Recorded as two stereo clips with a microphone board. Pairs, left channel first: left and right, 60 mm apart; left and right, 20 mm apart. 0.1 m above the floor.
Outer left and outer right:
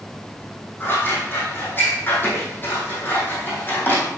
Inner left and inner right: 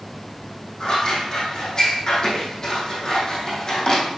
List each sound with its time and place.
0.8 s scissors: 35° left (ahead or behind), 3.5 m